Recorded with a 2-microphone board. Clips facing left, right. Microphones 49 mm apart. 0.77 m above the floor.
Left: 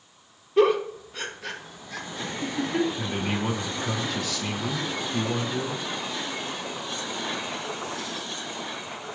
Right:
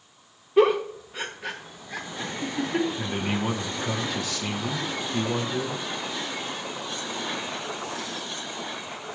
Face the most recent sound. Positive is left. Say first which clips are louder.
# even
turn(degrees=-5)  # may be behind; listen again after turning